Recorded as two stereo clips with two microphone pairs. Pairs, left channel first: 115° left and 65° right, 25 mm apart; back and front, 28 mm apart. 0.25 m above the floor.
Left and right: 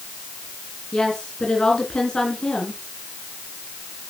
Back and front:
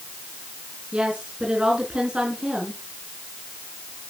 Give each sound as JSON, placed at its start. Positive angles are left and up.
{"t": 0.9, "sound": "a woman speaking", "azimuth_deg": 55, "distance_m": 3.5}